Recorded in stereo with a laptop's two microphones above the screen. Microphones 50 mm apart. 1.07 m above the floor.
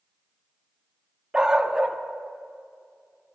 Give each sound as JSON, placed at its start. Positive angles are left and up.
{"t": 1.3, "sound": "a dog barking", "side_deg": -15, "distance_m": 0.5}